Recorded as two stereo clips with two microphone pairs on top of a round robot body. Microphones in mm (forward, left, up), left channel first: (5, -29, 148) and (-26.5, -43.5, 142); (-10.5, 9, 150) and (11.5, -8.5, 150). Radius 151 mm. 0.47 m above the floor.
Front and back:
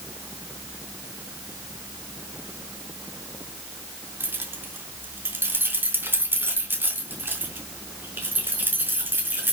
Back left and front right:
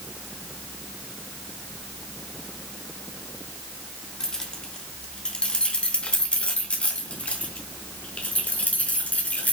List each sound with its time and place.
4.2 s keys jangling: 150° right, 2.5 m; by 9.5 s 175° left, 5 m